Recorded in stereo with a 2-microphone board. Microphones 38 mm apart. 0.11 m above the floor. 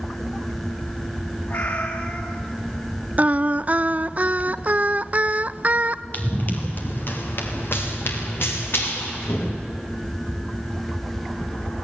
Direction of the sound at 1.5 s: 55° left (ahead or behind).